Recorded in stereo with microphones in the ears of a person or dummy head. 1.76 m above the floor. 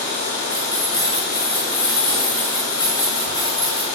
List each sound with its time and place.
0.5 s keys jangling: 25° left (ahead or behind), 7 m